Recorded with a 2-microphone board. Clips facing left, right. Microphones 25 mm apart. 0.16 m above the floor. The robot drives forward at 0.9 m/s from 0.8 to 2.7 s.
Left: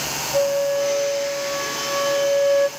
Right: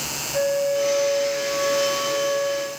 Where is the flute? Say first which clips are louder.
Left 2 dB; 35° left (ahead or behind), 2.5 m; by 2.7 s 70° left (ahead or behind), 1.4 m.